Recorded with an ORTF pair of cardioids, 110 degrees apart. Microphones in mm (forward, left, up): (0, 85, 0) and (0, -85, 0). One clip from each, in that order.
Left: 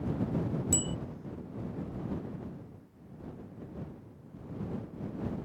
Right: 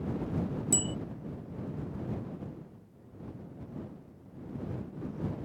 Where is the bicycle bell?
15° right.